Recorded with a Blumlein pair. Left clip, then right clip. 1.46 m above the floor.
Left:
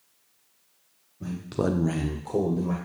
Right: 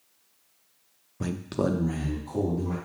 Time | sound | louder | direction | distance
1.2 | a man speaking | even | 45° right | 0.6 m